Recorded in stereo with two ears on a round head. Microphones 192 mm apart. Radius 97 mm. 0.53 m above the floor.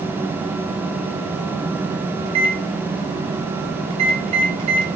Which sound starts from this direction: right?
A microwave, at 2.2 s.